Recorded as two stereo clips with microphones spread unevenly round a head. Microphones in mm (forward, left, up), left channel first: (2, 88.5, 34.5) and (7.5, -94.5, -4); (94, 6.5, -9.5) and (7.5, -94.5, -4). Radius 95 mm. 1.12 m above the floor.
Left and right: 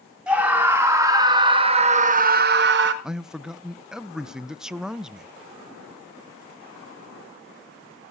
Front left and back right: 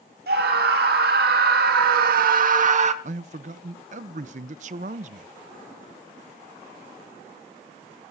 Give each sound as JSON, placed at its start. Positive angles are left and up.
{"t": 0.3, "sound": "a scream", "azimuth_deg": -170, "distance_m": 4.0}
{"t": 3.0, "sound": "a man speaking", "azimuth_deg": -165, "distance_m": 0.6}